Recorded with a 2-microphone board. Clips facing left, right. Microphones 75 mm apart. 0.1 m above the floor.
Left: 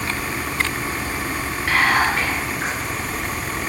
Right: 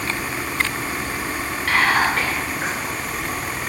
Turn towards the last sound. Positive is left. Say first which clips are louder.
# even
turn(degrees=10)  # may be behind; listen again after turning